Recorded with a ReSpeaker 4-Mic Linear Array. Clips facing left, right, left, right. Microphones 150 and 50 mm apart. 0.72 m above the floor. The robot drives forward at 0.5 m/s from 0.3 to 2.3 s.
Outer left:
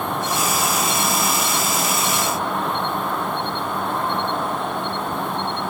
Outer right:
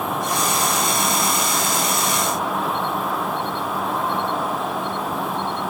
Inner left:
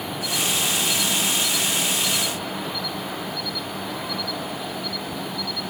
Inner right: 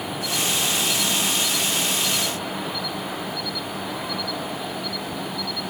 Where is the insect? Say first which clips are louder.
Even, even; centre (ahead or behind).